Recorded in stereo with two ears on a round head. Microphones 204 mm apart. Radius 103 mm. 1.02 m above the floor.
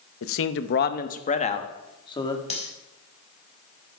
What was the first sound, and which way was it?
A man speaking, 70° left (ahead or behind).